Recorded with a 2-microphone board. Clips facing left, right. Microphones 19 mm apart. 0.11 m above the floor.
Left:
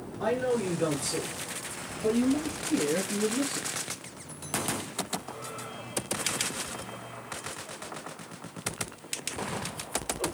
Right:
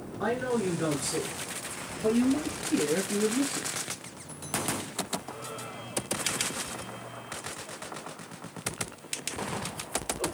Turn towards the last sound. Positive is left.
turn(degrees=-15)  # may be behind; listen again after turning